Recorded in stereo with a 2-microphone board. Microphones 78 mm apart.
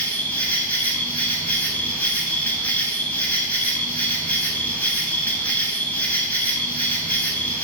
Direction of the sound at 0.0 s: 20° left (ahead or behind).